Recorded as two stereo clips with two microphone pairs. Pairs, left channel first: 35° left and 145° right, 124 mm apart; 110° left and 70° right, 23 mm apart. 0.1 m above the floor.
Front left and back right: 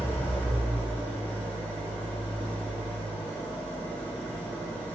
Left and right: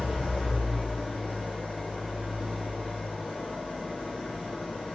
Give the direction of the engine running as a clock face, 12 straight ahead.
8 o'clock.